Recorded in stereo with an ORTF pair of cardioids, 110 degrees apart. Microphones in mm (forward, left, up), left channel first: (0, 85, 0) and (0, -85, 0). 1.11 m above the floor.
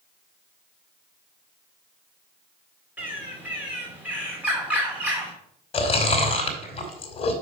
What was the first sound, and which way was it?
A bird, 10° right.